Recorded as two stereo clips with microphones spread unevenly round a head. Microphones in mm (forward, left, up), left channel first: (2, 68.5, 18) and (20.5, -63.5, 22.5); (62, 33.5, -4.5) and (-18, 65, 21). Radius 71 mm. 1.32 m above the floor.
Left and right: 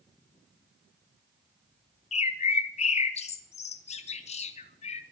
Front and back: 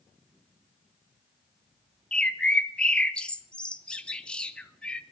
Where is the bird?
55° left, 1.3 m.